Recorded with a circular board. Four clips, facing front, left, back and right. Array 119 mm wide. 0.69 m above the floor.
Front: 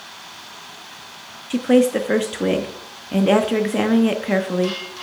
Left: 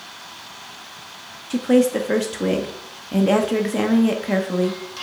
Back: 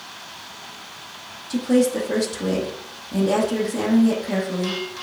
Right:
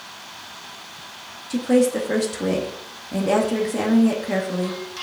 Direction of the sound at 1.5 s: 20° left.